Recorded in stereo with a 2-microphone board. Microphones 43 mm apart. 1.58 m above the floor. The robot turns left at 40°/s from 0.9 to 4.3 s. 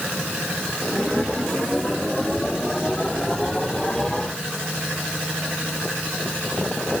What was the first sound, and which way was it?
Only background noise.